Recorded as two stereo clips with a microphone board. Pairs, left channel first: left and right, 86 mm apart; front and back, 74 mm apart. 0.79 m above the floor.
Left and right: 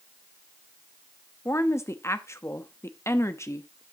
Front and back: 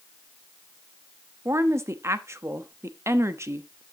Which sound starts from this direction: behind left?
A woman speaking, at 1.4 s.